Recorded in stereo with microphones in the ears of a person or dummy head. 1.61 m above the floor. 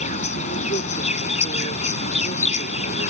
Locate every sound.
0.0 s an insect: 40° left (ahead or behind)